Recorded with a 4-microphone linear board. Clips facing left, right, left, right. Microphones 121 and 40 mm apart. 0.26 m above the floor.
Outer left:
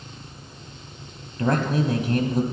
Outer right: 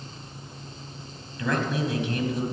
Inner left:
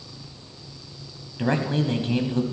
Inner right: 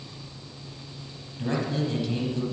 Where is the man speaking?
45° left (ahead or behind), 1.3 m.